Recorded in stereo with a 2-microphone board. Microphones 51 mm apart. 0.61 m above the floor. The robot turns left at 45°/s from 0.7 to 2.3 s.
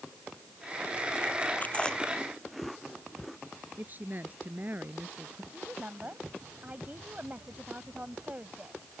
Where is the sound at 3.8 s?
35° right (ahead or behind).